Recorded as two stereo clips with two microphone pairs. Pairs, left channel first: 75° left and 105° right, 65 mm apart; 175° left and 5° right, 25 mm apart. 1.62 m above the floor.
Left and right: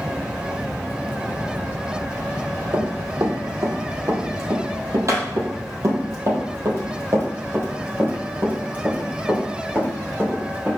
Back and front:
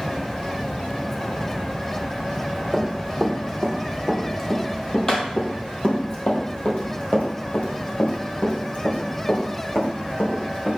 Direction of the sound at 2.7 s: 90° right.